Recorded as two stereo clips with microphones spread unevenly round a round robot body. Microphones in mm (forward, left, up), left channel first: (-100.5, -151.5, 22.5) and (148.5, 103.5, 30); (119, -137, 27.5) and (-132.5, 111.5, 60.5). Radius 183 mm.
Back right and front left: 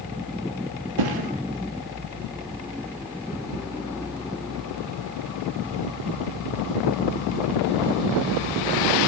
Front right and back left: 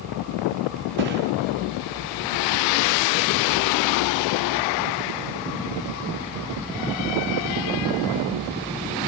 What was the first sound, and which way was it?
A thud, 75° left.